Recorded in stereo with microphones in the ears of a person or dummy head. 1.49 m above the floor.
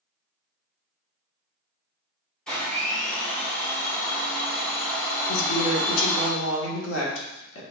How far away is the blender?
About 1.5 m.